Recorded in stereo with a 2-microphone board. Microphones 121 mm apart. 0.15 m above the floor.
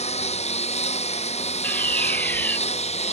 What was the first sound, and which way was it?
A lawn mower, 60° left (ahead or behind).